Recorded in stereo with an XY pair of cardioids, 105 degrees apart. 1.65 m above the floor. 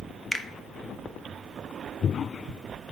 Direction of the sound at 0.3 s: 10° left.